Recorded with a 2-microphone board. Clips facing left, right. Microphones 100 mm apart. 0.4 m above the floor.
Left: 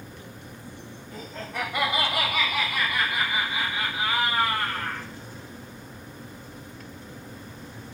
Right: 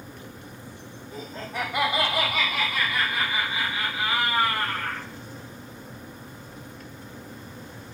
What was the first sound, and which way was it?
Laughter, 10° right (ahead or behind).